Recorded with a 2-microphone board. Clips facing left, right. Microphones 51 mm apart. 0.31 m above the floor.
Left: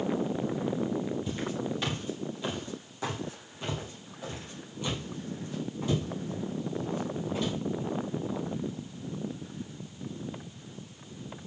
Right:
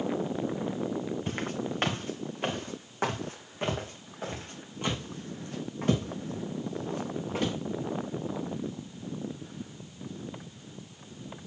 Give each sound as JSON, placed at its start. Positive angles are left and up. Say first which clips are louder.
{"t": 1.3, "sound": "footsteps", "louder": "even", "side_deg": -50, "distance_m": 2.5}